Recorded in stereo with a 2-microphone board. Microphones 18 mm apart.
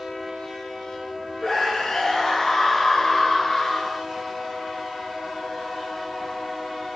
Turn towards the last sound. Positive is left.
turn(degrees=30)  # may be behind; listen again after turning